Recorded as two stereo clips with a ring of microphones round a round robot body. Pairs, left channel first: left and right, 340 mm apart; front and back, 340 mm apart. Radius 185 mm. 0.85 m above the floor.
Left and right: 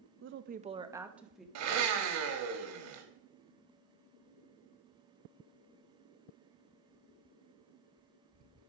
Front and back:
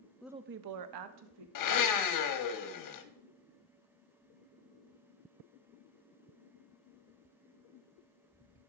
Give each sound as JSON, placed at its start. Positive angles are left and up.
{"t": 0.2, "sound": "a woman speaking", "azimuth_deg": -80, "distance_m": 0.5}
{"t": 1.6, "sound": "a blender", "azimuth_deg": -35, "distance_m": 1.1}